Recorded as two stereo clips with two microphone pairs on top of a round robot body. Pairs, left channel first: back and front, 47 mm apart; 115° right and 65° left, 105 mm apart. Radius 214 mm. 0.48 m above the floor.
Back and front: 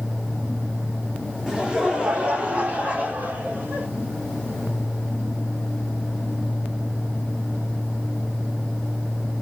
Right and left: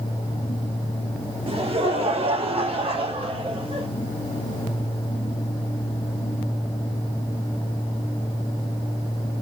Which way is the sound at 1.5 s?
70° left.